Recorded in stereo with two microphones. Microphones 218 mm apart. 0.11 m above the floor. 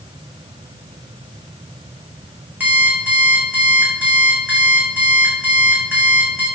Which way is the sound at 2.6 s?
5° right (ahead or behind).